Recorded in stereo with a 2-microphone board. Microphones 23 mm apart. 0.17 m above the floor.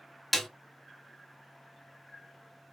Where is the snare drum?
5° right (ahead or behind), 0.7 m.